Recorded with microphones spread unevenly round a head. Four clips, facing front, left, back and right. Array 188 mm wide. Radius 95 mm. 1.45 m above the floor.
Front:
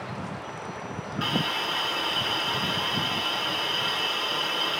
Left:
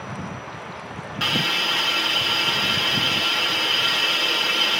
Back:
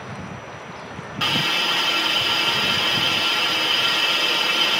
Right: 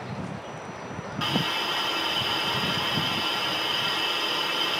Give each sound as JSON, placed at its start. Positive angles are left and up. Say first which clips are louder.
{"t": 1.2, "sound": "a hiss", "louder": "left 2 dB, back 4 dB", "azimuth_deg": 155, "distance_m": 3.0}